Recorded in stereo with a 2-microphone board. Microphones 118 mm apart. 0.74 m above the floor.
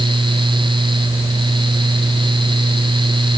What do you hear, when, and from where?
Only background noise.